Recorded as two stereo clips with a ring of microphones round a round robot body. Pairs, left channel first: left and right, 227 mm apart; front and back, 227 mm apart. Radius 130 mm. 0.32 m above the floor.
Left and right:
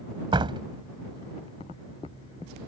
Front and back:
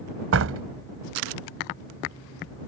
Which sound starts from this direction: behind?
A door slam, at 0.3 s.